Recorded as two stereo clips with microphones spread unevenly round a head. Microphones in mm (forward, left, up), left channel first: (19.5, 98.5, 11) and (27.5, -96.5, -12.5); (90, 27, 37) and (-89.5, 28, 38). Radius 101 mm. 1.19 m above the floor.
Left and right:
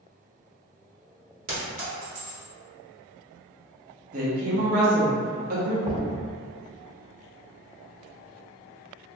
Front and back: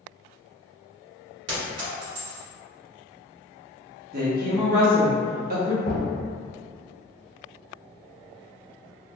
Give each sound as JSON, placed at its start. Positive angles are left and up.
{"t": 1.5, "sound": "a clink", "azimuth_deg": -145, "distance_m": 1.1}
{"t": 4.1, "sound": "a woman speaking", "azimuth_deg": -135, "distance_m": 0.8}
{"t": 5.8, "sound": "knocking", "azimuth_deg": -20, "distance_m": 1.3}